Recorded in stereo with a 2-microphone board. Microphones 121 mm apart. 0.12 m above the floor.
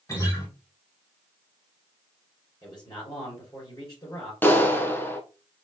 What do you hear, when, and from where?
0.1 s a guitar: 30° left (ahead or behind), 3 m
2.6 s a man speaking: 40° left (ahead or behind), 3 m
4.4 s a clap: 15° left (ahead or behind), 0.9 m